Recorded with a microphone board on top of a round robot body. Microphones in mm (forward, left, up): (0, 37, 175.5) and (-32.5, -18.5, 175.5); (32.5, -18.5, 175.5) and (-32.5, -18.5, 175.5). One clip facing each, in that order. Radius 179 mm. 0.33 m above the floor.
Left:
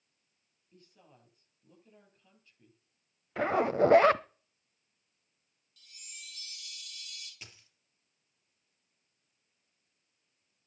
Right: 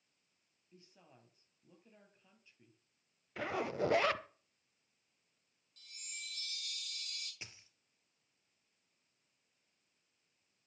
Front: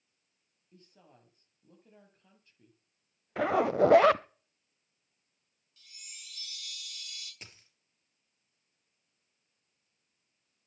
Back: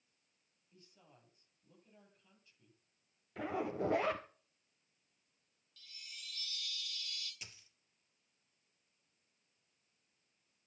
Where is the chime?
70° right, 6 m.